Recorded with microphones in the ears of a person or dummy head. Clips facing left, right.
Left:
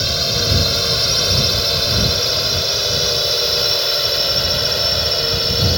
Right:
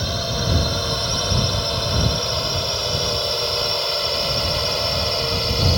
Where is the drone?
35° left (ahead or behind); by 5.8 s 20° left (ahead or behind).